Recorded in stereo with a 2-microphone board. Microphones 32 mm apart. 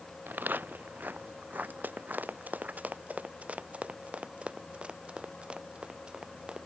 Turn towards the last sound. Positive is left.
turn(degrees=-30)  # may be behind; listen again after turning